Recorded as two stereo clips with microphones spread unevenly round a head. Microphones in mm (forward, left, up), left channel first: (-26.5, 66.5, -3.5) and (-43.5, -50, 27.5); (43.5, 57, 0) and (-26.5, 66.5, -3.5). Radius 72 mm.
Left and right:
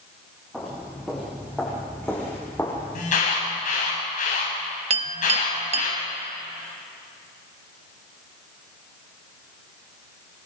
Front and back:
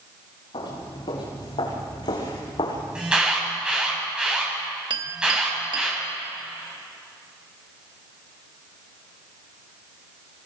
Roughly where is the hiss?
No hiss in this recording.